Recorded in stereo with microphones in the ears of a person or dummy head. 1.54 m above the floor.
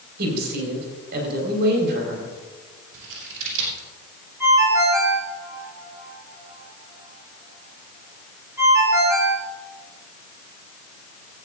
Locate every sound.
0.2 s a woman speaking: 60° right (ahead or behind), 4.5 m
2.9 s scissors: 75° right (ahead or behind), 4 m
4.4 s a ringtone: 15° right (ahead or behind), 4.5 m